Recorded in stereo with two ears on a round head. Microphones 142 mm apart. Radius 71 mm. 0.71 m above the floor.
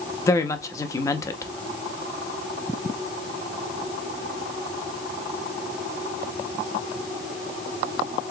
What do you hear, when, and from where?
0.3 s a woman speaking: 20° left (ahead or behind), 0.8 m